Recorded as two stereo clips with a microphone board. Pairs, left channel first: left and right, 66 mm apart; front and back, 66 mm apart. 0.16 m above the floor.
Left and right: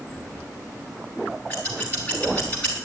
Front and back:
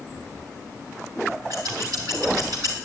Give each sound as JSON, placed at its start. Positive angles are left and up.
{"t": 1.5, "sound": "scissors", "azimuth_deg": 155, "distance_m": 3.5}